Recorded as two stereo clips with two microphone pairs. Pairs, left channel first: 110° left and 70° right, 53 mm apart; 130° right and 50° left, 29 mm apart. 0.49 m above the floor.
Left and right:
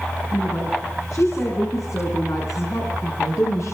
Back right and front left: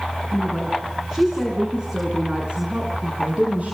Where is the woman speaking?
130° left, 5.5 m; by 3.8 s 95° left, 7 m.